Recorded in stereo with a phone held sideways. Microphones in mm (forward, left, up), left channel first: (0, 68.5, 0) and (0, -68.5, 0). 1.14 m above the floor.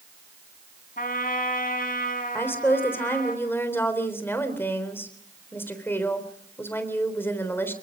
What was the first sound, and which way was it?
A trumpet, 85° left.